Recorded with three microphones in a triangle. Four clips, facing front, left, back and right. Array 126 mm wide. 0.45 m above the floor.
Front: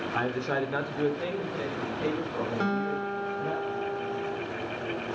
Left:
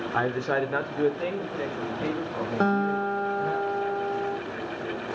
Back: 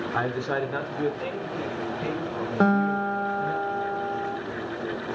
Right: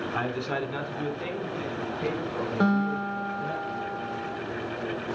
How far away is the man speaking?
About 1.0 m.